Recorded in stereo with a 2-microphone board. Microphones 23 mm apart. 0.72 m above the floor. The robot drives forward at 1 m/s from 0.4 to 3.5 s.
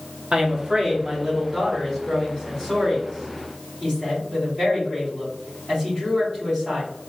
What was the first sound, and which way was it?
A woman speaking, 40° right (ahead or behind).